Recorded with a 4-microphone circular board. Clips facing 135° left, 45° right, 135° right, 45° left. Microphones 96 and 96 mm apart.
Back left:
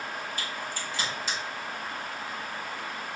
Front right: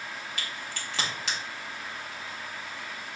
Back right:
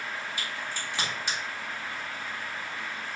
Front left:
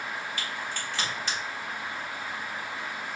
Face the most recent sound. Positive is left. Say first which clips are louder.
# back left 3 dB, front left 1 dB
turn(degrees=-60)